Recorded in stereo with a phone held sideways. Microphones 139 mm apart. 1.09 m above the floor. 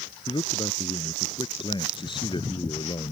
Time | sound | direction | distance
0.3 | a man speaking | 35° left (ahead or behind) | ?